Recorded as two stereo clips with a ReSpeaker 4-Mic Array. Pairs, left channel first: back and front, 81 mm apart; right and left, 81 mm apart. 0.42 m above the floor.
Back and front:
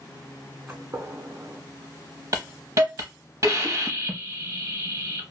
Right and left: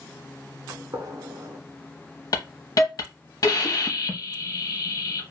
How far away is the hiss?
About 0.7 m.